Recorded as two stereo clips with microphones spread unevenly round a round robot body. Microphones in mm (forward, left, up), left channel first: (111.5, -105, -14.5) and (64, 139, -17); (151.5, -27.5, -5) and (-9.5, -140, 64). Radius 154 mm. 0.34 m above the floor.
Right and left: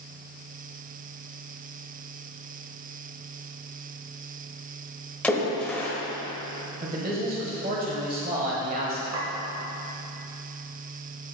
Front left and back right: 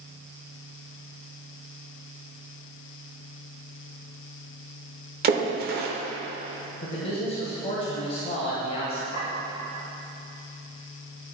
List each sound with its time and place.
5.2 s a splash: 160° right, 0.8 m
6.8 s a man speaking: 60° left, 1.3 m
9.1 s a clink: 100° left, 2.5 m